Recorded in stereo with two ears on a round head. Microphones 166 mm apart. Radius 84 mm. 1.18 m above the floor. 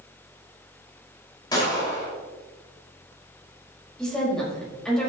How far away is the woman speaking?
About 5 m.